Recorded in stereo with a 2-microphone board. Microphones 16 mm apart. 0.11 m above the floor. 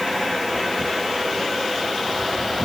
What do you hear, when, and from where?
Only background noise.